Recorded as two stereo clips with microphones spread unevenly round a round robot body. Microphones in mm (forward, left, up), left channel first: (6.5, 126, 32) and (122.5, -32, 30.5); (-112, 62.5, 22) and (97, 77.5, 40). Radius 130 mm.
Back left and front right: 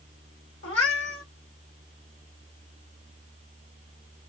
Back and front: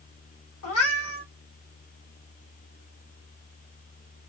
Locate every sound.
0.6 s a cat meowing: 175° left, 1.4 m